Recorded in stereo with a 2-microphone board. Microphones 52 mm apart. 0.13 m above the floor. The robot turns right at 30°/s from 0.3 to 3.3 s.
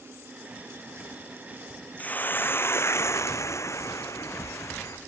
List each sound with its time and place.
2.0 s a hiss: 30° left; by 5.0 s 70° left